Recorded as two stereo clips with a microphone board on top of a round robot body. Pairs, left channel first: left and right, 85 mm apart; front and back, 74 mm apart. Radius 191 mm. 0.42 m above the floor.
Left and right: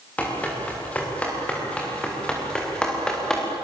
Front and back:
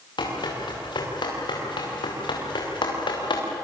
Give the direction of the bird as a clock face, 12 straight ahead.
I don't hear a bird.